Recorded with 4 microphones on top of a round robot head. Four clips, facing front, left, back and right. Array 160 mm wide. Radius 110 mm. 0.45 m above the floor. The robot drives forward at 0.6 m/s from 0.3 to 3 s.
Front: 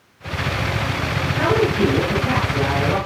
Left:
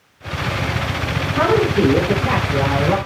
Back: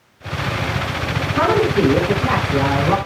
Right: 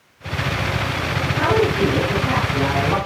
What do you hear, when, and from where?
1.4 s a woman speaking: 150° left, 6 m; by 3.0 s 155° left, 7 m